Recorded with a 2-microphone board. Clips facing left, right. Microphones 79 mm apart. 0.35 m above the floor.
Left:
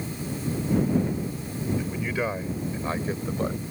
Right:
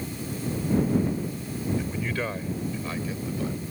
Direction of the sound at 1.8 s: Centre (ahead or behind).